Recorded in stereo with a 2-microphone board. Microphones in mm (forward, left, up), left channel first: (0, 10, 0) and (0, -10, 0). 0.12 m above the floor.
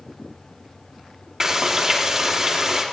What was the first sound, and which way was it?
Frying, 35° right (ahead or behind).